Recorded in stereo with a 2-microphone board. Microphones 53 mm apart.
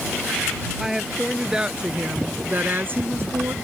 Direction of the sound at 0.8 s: 5° right (ahead or behind).